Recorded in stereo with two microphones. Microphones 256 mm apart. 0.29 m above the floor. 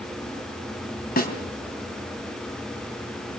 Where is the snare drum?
35° left (ahead or behind), 2.5 m.